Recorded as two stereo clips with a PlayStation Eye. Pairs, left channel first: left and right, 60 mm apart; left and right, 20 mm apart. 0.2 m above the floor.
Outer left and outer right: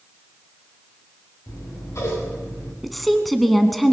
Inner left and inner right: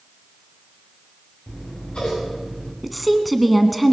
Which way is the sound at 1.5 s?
60° left (ahead or behind).